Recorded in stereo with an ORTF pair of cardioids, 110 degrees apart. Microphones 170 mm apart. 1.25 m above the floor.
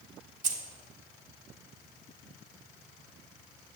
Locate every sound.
0.4 s keys jangling: 50° right, 1.6 m